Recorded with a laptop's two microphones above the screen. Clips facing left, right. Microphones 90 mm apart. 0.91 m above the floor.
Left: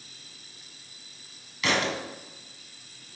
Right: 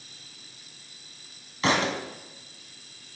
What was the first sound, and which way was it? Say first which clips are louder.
A thud: right 2 dB; 35° right (ahead or behind).